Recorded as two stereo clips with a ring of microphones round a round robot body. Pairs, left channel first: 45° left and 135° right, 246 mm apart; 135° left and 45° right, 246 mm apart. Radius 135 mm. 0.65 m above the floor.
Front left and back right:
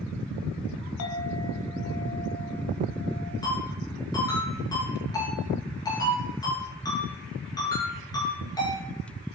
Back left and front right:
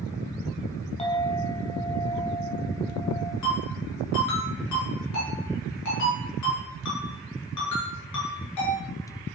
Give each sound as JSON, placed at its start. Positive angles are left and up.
{"t": 1.0, "sound": "a clink", "azimuth_deg": 70, "distance_m": 2.0}
{"t": 3.4, "sound": "a ringtone", "azimuth_deg": 120, "distance_m": 7.5}